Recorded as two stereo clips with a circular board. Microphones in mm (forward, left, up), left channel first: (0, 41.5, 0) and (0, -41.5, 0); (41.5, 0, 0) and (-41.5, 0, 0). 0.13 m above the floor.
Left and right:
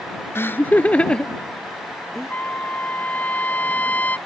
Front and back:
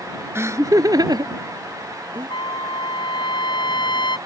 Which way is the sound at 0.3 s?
135° left.